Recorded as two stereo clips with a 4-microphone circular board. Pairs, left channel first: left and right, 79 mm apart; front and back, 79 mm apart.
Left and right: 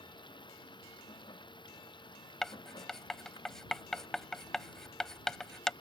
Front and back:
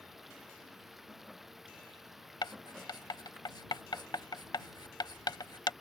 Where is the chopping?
No chopping in this recording.